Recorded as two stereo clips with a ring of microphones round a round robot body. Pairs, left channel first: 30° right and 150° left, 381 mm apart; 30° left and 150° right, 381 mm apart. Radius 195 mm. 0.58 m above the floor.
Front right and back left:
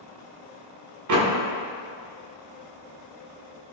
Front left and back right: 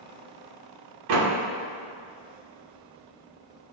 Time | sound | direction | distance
1.1 | a door slam | 170° right | 1.5 m